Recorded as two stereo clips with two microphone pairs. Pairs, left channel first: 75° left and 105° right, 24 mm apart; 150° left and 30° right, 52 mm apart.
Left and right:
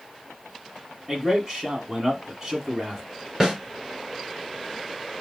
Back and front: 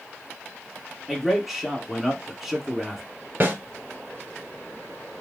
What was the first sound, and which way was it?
A man speaking, 110° right.